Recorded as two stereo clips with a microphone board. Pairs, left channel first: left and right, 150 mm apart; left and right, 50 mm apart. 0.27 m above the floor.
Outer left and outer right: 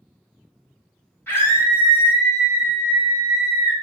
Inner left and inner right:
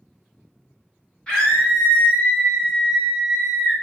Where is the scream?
15° left (ahead or behind), 1.4 m.